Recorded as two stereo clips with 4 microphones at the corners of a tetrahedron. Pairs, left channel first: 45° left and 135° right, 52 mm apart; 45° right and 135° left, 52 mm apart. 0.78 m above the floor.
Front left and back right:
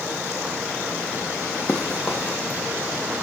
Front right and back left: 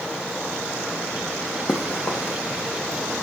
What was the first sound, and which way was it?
Running footsteps, 15° right.